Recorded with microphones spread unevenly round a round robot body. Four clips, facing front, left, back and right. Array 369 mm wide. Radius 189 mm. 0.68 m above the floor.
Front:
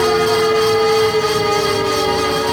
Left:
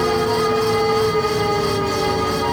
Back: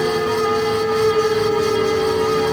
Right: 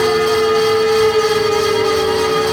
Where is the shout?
No shout in this recording.